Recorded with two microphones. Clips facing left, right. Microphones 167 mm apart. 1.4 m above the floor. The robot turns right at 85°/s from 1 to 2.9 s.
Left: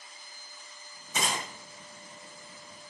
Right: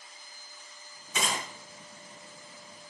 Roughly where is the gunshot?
Left.